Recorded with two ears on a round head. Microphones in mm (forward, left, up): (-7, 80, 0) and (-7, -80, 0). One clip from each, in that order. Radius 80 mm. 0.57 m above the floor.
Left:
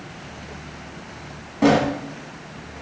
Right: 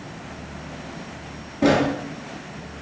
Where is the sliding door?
35° left (ahead or behind), 1.5 m.